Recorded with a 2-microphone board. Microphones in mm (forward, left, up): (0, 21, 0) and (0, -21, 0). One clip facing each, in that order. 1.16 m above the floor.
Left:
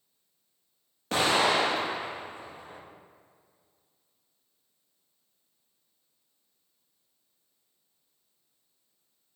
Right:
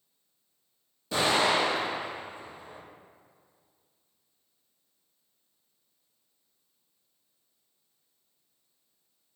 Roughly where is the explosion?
Left.